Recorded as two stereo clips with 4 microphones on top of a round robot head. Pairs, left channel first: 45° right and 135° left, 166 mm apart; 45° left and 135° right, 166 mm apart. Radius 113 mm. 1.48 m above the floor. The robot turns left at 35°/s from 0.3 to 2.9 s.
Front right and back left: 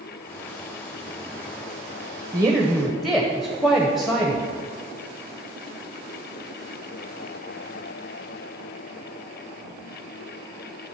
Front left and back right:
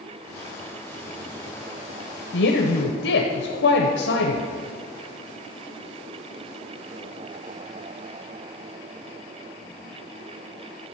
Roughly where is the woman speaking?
Ahead left.